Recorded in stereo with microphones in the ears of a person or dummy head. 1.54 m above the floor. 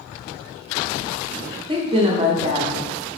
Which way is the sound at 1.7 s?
25° right (ahead or behind).